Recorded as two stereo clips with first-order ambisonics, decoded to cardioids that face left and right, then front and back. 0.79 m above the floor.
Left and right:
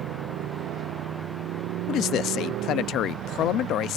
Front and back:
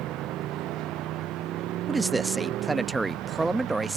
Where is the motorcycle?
135° right; by 4.0 s 130° right.